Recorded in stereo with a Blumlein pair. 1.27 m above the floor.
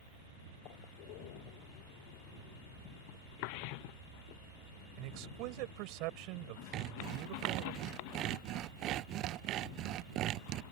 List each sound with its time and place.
5.0 s a man speaking: 45° right
6.7 s sawing: 35° right